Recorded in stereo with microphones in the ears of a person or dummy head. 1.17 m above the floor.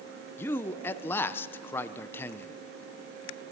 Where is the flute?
I don't hear a flute.